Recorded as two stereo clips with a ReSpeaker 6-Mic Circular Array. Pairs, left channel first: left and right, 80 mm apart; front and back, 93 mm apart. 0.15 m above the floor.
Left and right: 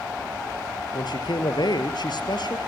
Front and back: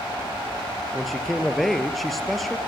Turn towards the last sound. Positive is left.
turn(degrees=90)